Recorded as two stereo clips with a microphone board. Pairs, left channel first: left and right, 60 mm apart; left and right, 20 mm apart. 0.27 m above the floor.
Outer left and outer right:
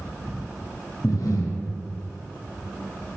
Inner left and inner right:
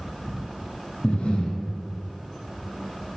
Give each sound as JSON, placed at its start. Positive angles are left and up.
{"t": 1.0, "sound": "breathing", "side_deg": 80, "distance_m": 0.5}